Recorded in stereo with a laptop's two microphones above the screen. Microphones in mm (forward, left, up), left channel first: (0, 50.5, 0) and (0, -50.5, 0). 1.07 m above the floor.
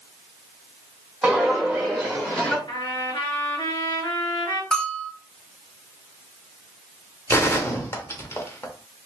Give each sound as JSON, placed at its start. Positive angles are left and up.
{"t": 1.2, "sound": "footsteps", "side_deg": -10, "distance_m": 2.0}
{"t": 2.7, "sound": "a trumpet", "side_deg": 55, "distance_m": 2.5}
{"t": 4.7, "sound": "a bell", "side_deg": 5, "distance_m": 0.7}
{"t": 7.3, "sound": "a gunshot", "side_deg": 30, "distance_m": 0.9}